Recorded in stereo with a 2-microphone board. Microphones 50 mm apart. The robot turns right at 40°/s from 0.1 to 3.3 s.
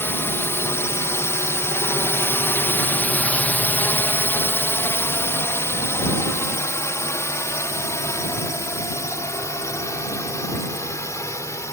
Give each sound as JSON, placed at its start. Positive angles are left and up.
{"t": 0.0, "sound": "a drone", "side_deg": 50}